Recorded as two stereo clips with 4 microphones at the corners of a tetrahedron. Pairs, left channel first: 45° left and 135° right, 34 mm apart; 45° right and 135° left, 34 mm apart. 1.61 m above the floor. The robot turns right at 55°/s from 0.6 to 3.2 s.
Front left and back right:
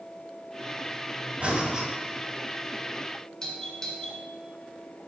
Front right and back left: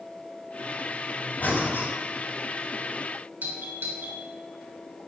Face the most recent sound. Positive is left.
turn(degrees=115)